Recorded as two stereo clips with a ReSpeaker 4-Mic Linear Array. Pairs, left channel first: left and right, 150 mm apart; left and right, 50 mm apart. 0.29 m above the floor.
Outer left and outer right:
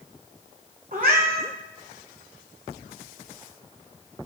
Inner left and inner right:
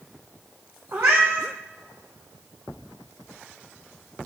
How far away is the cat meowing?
About 3 m.